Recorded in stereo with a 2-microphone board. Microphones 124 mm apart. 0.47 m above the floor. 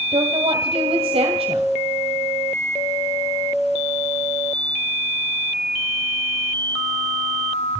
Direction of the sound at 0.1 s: 55° right (ahead or behind).